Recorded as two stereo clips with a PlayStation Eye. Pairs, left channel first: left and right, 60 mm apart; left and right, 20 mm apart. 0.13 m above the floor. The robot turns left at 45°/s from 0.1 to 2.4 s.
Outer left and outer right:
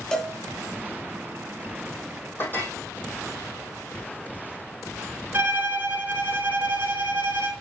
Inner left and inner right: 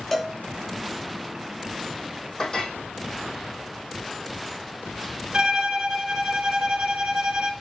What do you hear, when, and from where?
0.1 s a cowbell: 10° left (ahead or behind), 1.2 m; by 0.3 s 5° left (ahead or behind), 1.2 m
2.4 s a clink: 35° left (ahead or behind), 3 m
5.3 s a violin: 35° right (ahead or behind), 0.9 m